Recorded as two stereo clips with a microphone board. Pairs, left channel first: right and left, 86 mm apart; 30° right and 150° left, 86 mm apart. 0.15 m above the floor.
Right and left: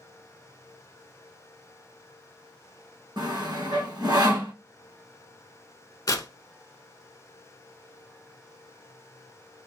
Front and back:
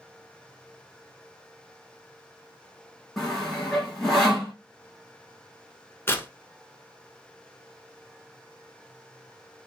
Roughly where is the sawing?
Ahead left.